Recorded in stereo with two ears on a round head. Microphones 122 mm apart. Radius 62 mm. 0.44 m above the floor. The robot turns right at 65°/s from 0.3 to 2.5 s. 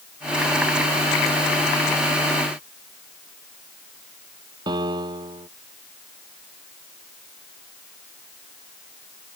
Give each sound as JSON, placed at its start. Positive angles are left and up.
{"t": 4.7, "sound": "a piano", "side_deg": -30}